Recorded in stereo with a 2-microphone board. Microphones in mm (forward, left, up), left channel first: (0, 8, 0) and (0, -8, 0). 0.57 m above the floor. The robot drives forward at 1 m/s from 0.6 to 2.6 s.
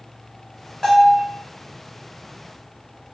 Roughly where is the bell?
Left.